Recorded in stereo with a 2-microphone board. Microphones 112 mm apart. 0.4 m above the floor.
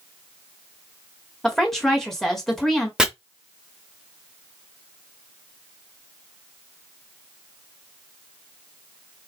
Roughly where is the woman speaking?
Centre.